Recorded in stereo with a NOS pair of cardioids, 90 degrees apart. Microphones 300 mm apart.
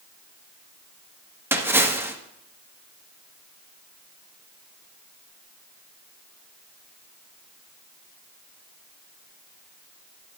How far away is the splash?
About 1.7 m.